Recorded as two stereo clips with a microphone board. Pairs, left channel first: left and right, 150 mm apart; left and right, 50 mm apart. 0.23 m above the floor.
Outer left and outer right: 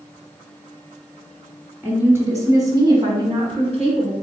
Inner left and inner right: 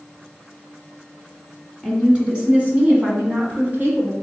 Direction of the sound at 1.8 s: 15° right (ahead or behind).